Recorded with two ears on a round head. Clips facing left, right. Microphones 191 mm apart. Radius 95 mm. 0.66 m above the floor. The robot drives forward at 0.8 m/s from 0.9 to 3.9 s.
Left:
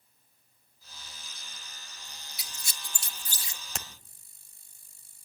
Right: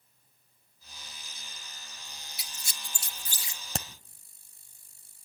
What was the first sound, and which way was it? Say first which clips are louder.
A squeak: even; 75° left (ahead or behind).